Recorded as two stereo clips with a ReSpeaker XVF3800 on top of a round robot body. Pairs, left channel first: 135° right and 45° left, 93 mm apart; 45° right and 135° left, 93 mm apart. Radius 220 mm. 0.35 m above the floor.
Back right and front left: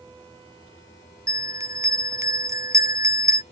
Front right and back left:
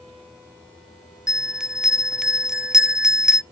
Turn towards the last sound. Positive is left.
turn(degrees=55)